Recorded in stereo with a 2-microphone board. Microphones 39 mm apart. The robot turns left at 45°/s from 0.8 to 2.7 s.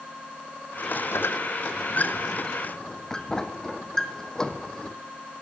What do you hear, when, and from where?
1.1 s a squeak: 75° left (ahead or behind), 1.4 m; by 5.0 s 15° left (ahead or behind), 1.4 m